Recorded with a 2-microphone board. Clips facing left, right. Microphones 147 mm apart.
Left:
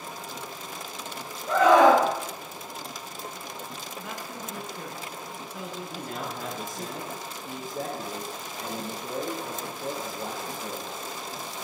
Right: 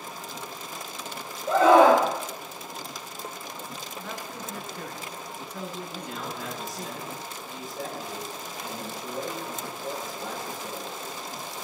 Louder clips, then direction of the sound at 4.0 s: Even; 10° left (ahead or behind).